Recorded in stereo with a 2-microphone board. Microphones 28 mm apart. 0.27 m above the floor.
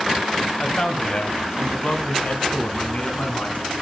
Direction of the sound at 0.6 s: 35° left (ahead or behind).